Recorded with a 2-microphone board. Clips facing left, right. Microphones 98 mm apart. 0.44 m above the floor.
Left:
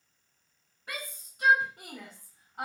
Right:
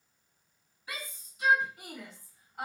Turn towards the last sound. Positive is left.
turn(degrees=20)  # may be behind; listen again after turning